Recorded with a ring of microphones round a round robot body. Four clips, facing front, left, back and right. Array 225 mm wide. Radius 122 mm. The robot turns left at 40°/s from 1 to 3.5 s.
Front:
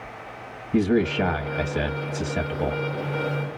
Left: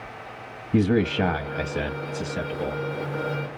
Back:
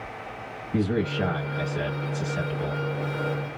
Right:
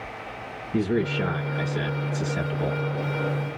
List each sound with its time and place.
0.7 s a man speaking: 70° left, 0.7 m; by 2.8 s 5° right, 0.7 m